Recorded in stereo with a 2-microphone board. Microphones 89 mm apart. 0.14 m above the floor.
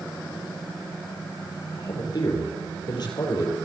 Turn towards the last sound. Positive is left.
turn(degrees=55)  # may be behind; listen again after turning